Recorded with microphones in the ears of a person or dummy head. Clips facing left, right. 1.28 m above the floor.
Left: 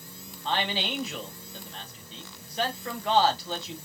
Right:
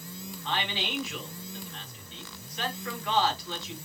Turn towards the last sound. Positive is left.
turn(degrees=35)  # may be behind; listen again after turning